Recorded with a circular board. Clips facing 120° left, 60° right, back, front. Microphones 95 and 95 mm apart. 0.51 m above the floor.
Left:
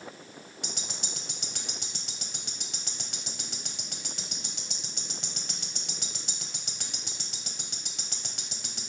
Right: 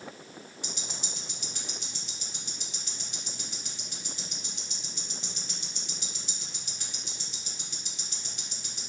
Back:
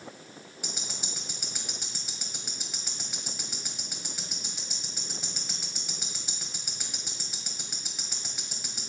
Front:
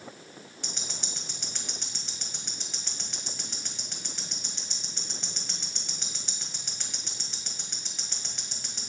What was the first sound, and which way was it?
Ticking, 95° left.